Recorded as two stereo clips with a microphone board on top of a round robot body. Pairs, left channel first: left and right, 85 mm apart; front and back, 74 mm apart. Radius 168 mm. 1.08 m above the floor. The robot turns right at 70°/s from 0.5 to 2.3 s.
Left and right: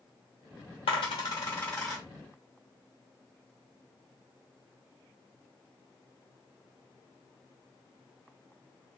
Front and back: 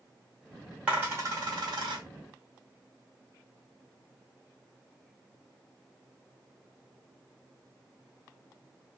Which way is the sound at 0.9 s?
100° left.